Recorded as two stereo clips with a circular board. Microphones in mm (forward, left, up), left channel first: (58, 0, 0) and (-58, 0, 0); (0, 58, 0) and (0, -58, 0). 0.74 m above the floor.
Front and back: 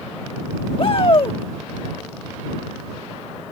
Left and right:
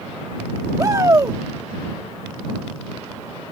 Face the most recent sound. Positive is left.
turn(degrees=-35)